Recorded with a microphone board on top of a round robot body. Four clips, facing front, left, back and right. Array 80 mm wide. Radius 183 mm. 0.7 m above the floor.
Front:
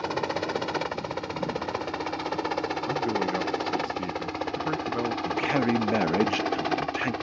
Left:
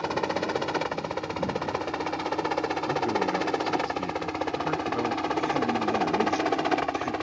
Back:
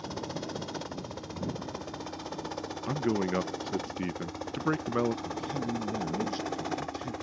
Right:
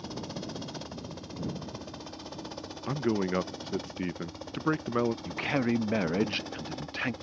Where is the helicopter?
55° left; by 7.2 s 65° left.